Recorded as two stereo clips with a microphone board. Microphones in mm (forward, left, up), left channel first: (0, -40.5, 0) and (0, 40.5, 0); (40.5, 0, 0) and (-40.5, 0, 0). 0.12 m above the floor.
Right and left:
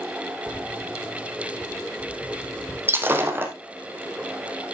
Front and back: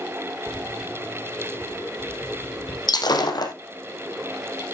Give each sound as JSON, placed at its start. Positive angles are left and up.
{"t": 0.5, "sound": "footsteps", "azimuth_deg": -150, "distance_m": 0.8}
{"t": 2.9, "sound": "breaking glass", "azimuth_deg": 30, "distance_m": 2.5}